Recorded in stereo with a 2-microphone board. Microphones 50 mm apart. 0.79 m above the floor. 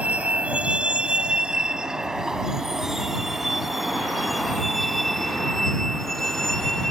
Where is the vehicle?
30° right (ahead or behind); by 6.9 s 5° left (ahead or behind).